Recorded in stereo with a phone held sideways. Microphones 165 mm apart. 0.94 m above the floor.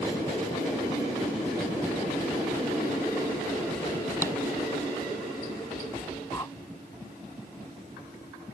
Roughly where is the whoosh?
Left.